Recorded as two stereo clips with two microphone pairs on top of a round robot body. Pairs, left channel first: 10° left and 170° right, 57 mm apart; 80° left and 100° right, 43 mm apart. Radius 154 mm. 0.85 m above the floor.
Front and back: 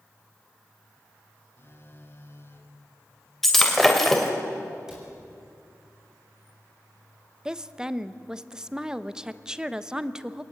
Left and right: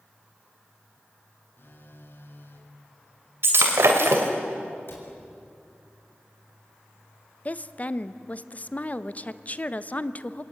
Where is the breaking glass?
75° right, 2.5 m.